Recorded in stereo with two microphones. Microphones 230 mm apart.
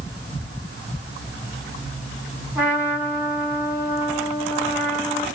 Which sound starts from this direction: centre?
A trumpet, at 2.5 s.